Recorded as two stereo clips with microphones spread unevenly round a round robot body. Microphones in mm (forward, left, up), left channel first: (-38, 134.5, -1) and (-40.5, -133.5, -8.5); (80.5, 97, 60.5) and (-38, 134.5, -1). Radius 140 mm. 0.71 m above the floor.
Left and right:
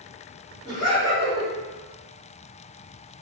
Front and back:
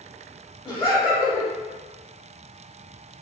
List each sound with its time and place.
0.7 s laughter: 45° left, 1.4 m